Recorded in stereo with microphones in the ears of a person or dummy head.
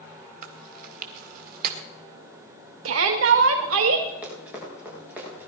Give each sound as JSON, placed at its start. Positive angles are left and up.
{"t": 0.4, "sound": "chewing", "side_deg": -45, "distance_m": 1.9}
{"t": 2.9, "sound": "a shout", "side_deg": -75, "distance_m": 1.5}
{"t": 4.2, "sound": "running footsteps", "side_deg": -5, "distance_m": 6.5}